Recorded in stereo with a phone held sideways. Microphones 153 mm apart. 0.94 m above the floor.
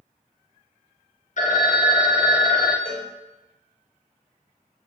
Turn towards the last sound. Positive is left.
turn(degrees=-70)  # may be behind; listen again after turning